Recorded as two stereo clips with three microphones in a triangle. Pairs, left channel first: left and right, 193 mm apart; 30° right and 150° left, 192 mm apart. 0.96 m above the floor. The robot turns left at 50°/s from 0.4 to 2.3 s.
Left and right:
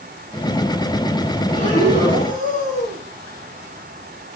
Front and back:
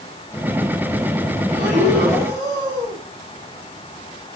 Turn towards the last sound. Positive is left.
turn(degrees=45)